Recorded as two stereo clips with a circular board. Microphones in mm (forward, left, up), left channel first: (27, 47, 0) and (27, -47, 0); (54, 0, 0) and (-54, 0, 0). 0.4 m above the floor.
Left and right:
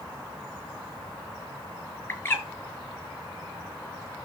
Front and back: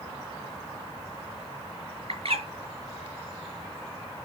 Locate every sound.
2.1 s a bird: 160° left, 7 m